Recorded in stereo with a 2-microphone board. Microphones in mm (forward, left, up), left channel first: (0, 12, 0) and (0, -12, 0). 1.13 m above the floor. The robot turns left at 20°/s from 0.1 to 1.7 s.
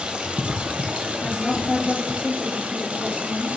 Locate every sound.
0.0 s running water: 60° right, 0.8 m; by 3.6 s 90° right, 0.8 m
1.2 s a woman speaking: 15° left (ahead or behind), 3 m; by 3.6 s 5° left (ahead or behind), 3 m